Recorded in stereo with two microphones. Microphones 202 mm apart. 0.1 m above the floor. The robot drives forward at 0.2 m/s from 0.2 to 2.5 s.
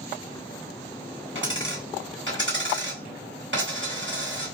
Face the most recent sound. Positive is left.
turn(degrees=-65)  # may be behind; listen again after turning